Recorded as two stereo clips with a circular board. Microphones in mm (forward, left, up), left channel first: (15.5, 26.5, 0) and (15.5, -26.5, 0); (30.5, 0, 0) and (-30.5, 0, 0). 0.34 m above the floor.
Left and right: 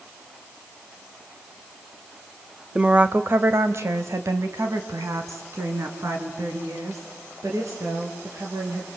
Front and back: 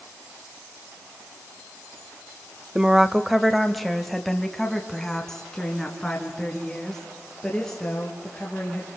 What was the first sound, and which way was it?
A woman speaking, 125° right.